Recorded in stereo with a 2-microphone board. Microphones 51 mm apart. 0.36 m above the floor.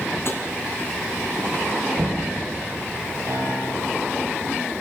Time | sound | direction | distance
0.2 | tapping | 55° left (ahead or behind) | 2.5 m
1.9 | knocking | 85° right | 6.5 m
3.3 | a piano | 70° right (ahead or behind) | 5.5 m